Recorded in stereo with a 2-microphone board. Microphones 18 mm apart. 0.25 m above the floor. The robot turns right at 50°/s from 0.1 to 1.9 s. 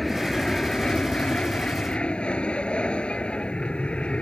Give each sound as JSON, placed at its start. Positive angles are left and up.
{"t": 0.0, "sound": "an aircraft", "azimuth_deg": 10}